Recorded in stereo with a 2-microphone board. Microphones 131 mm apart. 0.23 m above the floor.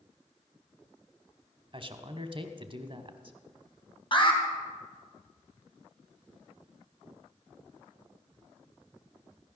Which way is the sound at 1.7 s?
40° right (ahead or behind).